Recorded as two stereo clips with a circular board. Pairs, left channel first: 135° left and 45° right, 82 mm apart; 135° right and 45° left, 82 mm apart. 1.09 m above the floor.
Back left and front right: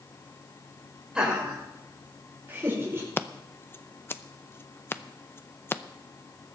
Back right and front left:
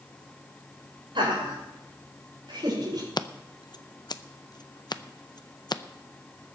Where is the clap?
No clap in this recording.